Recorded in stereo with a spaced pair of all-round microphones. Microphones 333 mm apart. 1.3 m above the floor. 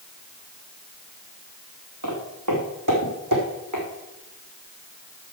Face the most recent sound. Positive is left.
turn(degrees=-70)  # may be behind; listen again after turning